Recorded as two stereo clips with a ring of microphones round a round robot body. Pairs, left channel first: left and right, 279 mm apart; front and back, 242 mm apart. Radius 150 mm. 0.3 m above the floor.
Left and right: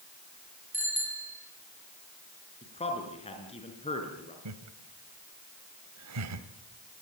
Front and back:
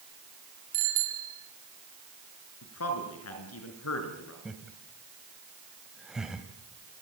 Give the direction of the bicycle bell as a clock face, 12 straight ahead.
6 o'clock.